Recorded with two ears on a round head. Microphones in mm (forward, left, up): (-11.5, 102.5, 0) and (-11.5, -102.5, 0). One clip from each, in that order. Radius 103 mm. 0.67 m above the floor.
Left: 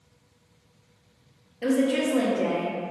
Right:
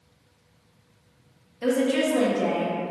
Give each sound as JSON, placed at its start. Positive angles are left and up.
{"t": 1.6, "sound": "a woman speaking", "side_deg": 5, "distance_m": 0.5}